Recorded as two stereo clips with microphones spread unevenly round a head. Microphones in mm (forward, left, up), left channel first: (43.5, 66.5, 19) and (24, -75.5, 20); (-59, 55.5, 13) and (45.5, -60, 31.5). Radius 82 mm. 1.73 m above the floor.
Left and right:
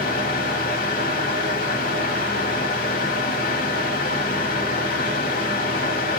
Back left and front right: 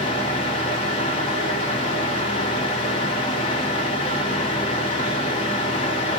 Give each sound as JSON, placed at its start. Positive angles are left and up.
{"t": 0.0, "sound": "a fan", "azimuth_deg": 70, "distance_m": 1.3}